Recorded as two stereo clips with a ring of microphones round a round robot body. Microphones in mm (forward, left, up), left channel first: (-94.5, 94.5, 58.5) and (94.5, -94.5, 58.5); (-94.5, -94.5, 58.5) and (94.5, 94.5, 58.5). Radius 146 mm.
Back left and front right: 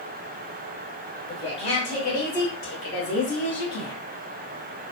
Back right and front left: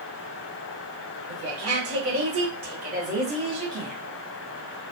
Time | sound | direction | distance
1.3 | a woman speaking | 60° left | 1.8 m